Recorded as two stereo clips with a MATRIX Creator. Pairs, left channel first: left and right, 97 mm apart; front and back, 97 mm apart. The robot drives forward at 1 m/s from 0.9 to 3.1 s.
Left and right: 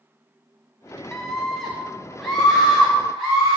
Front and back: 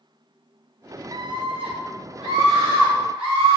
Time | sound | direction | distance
1.1 | a scream | 165° left | 0.5 m